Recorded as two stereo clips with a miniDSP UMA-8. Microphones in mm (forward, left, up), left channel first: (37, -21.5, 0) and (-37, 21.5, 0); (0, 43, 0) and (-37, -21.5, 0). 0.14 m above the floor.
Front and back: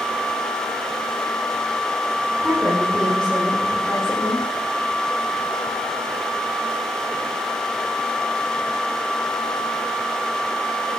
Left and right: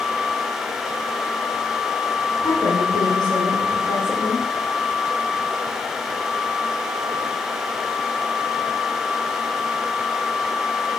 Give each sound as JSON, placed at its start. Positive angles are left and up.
{"t": 2.4, "sound": "a woman speaking", "azimuth_deg": 55, "distance_m": 7.5}